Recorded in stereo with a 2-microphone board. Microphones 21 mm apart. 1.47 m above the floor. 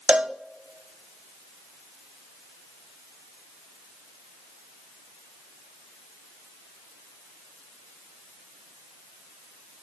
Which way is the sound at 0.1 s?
80° right.